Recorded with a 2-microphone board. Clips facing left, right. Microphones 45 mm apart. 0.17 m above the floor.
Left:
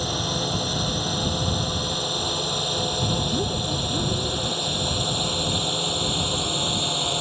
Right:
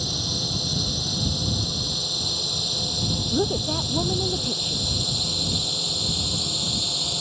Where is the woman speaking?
35° right (ahead or behind).